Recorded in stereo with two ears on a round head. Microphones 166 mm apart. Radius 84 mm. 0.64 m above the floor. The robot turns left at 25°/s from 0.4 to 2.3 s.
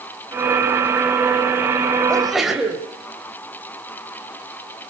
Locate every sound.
2.1 s a sneeze: 5° left (ahead or behind), 3 m; by 2.8 s centre (ahead or behind), 3 m